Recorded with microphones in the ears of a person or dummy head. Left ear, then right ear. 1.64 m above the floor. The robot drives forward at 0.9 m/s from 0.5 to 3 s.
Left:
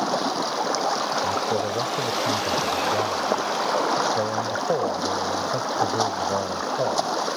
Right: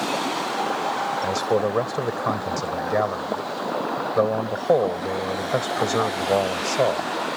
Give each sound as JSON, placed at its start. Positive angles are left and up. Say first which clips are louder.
{"t": 0.0, "sound": "running water", "louder": "left 1 dB", "side_deg": 85}
{"t": 1.2, "sound": "a man speaking", "louder": "right 2 dB", "side_deg": -85}